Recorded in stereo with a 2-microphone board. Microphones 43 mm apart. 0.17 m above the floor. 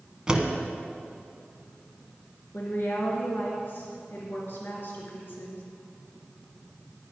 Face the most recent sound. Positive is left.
turn(degrees=55)  # may be behind; listen again after turning